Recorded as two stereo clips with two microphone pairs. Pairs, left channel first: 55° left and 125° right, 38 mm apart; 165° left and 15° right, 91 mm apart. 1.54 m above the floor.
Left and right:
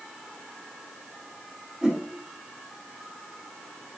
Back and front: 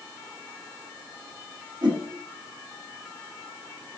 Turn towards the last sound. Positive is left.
turn(degrees=-50)